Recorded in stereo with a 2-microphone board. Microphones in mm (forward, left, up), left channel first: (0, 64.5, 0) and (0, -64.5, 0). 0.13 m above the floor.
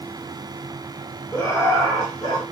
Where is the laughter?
25° left (ahead or behind), 1.5 m; by 2.4 s 40° left (ahead or behind), 1.6 m.